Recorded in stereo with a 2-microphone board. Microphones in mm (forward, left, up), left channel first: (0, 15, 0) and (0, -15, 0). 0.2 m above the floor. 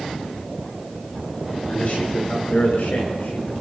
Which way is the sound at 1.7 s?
60° left (ahead or behind).